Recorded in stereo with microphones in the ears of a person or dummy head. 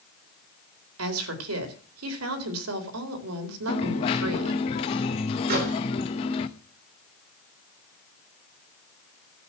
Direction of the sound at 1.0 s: 85° right.